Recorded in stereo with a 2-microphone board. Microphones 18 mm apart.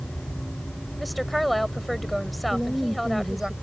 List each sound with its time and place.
1.0 s a woman speaking: 5° left (ahead or behind)
2.5 s a woman speaking: 50° right (ahead or behind)